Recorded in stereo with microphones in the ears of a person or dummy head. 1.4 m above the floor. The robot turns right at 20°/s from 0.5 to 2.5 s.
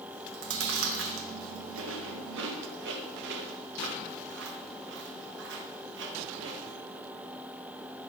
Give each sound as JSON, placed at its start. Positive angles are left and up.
{"t": 0.1, "sound": "chewing", "side_deg": -70, "distance_m": 1.5}